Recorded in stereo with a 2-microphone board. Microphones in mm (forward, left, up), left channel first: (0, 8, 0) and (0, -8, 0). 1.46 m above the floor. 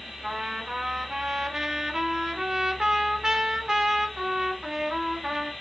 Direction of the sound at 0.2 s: 50° right (ahead or behind).